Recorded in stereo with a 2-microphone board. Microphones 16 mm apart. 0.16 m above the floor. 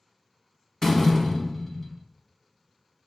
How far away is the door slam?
About 0.7 m.